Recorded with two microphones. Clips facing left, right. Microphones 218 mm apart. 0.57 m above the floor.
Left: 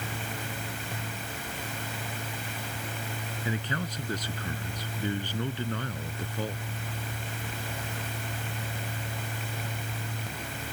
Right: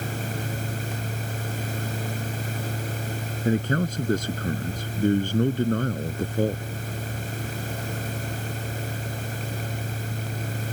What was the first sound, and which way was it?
A man speaking, 50° right (ahead or behind).